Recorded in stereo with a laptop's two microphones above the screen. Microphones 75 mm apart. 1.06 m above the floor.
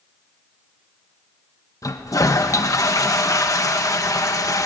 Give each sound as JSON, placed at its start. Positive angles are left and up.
{"t": 1.8, "sound": "a toilet flushing", "side_deg": 50, "distance_m": 1.3}